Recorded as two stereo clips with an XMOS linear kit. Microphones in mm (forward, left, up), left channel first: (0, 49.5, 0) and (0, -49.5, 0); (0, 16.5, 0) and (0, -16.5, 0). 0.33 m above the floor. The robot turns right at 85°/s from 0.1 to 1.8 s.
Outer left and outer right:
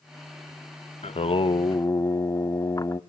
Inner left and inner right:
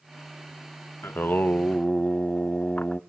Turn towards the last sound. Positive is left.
turn(degrees=145)